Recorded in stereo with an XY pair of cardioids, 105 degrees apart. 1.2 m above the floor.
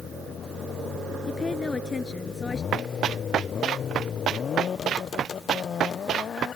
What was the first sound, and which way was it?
A woman speaking, 25° left.